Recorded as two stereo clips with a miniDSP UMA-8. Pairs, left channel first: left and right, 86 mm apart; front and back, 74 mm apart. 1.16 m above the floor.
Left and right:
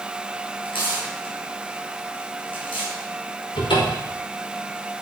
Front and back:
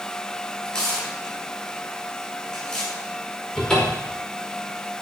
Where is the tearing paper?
75° left, 7 m.